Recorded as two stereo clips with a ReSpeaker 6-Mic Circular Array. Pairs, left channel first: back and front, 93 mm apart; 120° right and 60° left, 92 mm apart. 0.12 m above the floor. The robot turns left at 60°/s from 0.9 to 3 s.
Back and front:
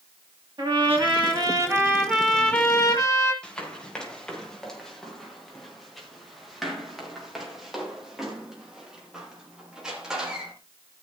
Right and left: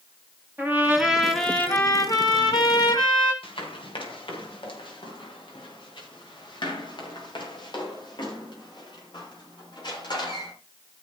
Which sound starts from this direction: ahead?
A trumpet, at 0.6 s.